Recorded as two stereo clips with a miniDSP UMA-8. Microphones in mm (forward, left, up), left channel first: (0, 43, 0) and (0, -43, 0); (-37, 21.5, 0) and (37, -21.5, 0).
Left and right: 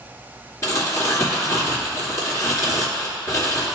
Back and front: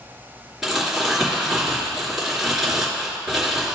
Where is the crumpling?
55° left, 2.5 m.